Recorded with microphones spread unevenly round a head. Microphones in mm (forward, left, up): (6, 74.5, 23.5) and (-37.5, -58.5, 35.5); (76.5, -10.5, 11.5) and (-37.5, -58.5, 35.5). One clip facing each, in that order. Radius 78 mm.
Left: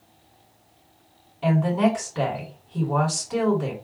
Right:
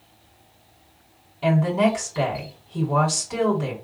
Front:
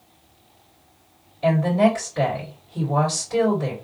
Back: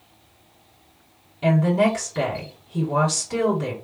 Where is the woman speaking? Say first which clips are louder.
Right 1 dB, front 1 dB; 165° left, 2.5 m.